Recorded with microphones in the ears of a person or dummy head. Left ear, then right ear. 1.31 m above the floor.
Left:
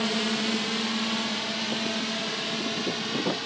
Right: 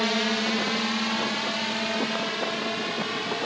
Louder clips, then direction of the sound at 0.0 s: Right 2 dB; 40° right (ahead or behind).